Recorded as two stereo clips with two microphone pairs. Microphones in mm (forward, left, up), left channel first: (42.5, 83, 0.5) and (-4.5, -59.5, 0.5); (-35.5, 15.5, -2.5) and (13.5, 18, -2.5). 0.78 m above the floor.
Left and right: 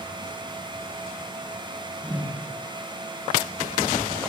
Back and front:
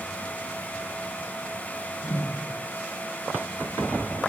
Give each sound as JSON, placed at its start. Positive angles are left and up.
{"t": 2.0, "sound": "a whoosh", "azimuth_deg": 175, "distance_m": 5.0}